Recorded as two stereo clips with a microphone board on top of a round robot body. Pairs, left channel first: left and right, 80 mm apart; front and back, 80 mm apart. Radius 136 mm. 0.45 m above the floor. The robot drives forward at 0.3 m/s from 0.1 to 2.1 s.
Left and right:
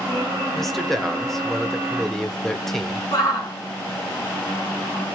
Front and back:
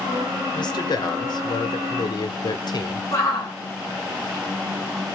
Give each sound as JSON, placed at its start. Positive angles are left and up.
{"t": 0.6, "sound": "a man speaking", "azimuth_deg": 5, "distance_m": 2.5}
{"t": 3.1, "sound": "a shout", "azimuth_deg": 45, "distance_m": 8.5}